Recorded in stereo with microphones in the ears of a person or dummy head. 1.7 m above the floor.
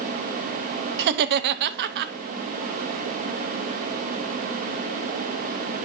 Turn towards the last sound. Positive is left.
turn(degrees=-55)  # may be behind; listen again after turning